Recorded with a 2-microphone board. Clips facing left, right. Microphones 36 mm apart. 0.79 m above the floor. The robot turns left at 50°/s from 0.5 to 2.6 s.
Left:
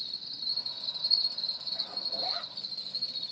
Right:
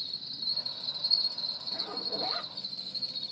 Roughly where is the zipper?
Right.